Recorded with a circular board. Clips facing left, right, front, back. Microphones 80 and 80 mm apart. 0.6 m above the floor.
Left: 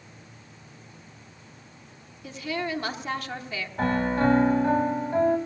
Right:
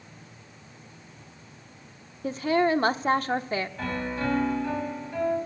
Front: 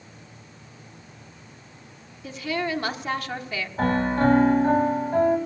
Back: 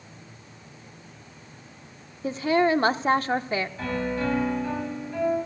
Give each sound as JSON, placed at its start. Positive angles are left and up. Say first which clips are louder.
{"t": 2.2, "sound": "a woman speaking", "louder": "right 8 dB, back 7 dB", "azimuth_deg": -130, "distance_m": 1.0}
{"t": 3.8, "sound": "a piano", "louder": "left 6 dB, front 6 dB", "azimuth_deg": 40, "distance_m": 2.0}